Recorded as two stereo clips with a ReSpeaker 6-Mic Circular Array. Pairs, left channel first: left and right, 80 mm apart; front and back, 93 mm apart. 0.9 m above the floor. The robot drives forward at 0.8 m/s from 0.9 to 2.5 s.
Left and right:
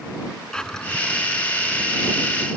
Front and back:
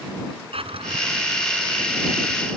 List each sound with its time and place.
0.5 s a drawer: 170° left; by 2.6 s 175° left